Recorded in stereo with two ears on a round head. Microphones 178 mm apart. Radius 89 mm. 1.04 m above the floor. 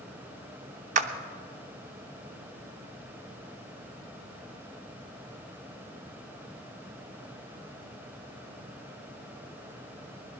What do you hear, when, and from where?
0.9 s a clap: 40° right (ahead or behind), 0.8 m